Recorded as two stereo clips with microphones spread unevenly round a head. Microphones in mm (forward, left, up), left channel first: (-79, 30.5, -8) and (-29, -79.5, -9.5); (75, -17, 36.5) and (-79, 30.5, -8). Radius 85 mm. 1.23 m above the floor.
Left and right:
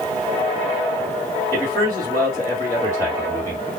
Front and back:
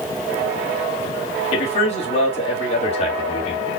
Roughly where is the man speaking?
Ahead left.